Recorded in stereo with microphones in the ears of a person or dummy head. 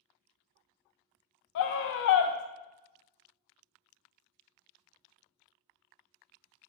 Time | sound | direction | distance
1.6 | a scream | 60° left (ahead or behind) | 0.5 m